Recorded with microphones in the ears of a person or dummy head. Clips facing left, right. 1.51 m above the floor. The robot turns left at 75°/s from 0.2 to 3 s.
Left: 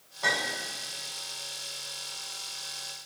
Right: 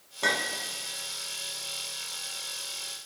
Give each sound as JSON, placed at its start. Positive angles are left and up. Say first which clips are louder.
{"t": 0.2, "sound": "a clink", "louder": "right 1 dB", "side_deg": -50, "distance_m": 1.7}